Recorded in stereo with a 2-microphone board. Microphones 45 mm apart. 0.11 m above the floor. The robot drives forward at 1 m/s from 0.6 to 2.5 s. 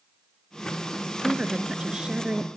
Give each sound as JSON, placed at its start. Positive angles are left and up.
{"t": 1.2, "sound": "a woman speaking", "side_deg": -25, "distance_m": 1.1}